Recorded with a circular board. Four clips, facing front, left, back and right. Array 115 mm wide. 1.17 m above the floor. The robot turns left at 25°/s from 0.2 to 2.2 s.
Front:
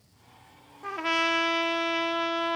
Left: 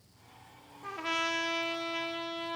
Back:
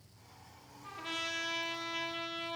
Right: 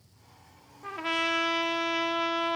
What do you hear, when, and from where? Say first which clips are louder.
0.8 s a trumpet: right 3 dB, front 14 dB; 5° right, 1.4 m; by 2.6 s 40° right, 1.4 m